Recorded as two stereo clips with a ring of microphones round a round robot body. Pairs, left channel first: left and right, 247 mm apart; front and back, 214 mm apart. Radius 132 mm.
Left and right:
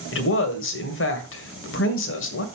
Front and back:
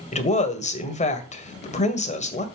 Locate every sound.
0.1 s a woman speaking: 55° left, 2 m